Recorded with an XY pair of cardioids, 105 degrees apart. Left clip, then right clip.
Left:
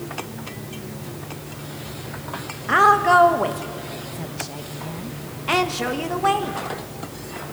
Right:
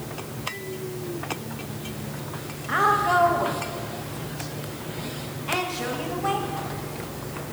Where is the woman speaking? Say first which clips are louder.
Left 6 dB; 45° left, 1.4 m.